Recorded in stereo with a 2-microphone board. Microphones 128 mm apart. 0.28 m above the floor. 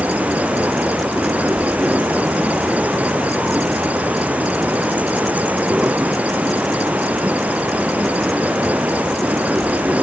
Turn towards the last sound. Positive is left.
turn(degrees=-10)  # may be behind; listen again after turning